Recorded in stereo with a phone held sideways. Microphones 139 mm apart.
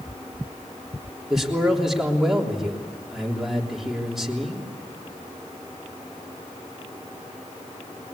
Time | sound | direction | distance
1.3 | a man speaking | 5° right (ahead or behind) | 3.5 m